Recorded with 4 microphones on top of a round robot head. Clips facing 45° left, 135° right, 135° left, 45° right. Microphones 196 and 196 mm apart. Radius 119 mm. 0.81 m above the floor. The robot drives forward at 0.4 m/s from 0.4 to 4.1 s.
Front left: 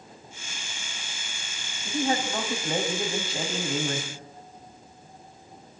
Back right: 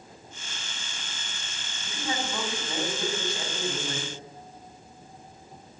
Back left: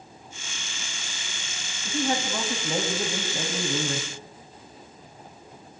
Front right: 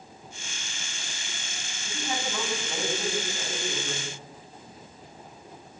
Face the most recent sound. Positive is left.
turn(degrees=110)